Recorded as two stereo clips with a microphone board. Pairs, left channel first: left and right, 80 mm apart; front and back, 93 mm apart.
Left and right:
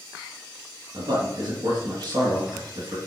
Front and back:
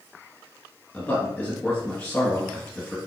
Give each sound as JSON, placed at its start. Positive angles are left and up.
{"t": 0.9, "sound": "a man speaking", "azimuth_deg": -75, "distance_m": 3.0}